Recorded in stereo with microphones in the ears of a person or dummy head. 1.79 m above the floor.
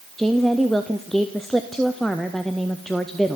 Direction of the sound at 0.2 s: 5° right (ahead or behind).